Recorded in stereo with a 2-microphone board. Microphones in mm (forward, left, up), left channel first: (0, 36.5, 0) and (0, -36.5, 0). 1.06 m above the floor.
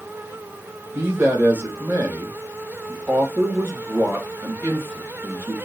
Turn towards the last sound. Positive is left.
turn(degrees=-25)  # may be behind; listen again after turning